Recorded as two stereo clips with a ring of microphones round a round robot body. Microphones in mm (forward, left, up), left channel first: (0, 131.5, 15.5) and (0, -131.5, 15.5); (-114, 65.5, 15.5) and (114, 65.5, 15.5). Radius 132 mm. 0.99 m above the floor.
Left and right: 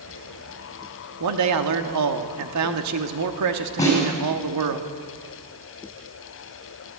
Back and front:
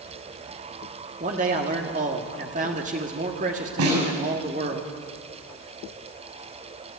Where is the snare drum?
15° left, 7 m.